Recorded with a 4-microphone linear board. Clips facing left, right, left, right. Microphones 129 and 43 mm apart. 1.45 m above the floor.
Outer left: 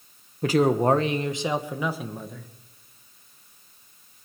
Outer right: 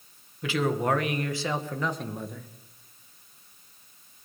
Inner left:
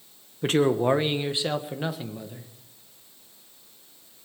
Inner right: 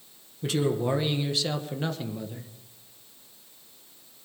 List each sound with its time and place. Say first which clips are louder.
0.4 s a man speaking: outer left 6 dB, inner left 5 dB; 45° left (ahead or behind), 1.3 m; by 2.5 s centre (ahead or behind), 1.6 m